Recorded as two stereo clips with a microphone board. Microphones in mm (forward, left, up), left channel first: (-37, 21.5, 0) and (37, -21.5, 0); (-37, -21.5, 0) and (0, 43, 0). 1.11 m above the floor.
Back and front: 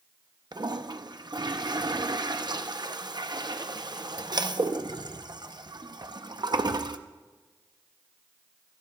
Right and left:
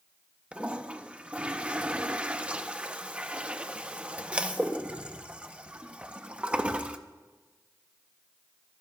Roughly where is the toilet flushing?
Ahead.